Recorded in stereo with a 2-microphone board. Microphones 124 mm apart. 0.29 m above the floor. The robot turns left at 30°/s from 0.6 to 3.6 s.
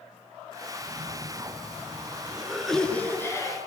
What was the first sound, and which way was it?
A cough, 125° right.